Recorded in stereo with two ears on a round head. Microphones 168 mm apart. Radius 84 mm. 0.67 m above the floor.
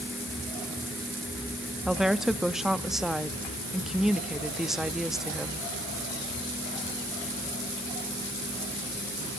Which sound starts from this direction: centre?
A woman speaking, at 1.9 s.